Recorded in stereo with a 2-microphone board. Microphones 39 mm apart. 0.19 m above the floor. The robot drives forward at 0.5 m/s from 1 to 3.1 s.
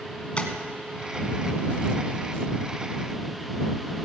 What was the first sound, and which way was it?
Tapping, 30° left (ahead or behind).